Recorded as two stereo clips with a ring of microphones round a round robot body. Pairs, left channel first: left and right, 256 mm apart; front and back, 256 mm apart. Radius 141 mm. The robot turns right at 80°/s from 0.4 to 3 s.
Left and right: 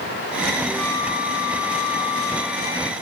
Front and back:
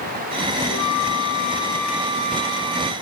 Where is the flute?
10° right; by 2.9 s 175° left.